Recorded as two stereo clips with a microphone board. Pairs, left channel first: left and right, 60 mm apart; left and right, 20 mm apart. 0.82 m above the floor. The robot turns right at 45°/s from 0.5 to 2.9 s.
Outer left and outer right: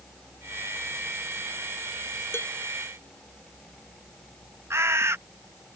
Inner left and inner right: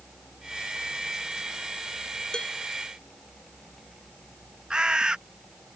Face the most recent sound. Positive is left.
turn(degrees=-45)  # may be behind; listen again after turning